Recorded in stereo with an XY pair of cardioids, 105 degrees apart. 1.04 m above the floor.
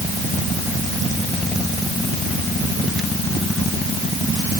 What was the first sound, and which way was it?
Only background noise.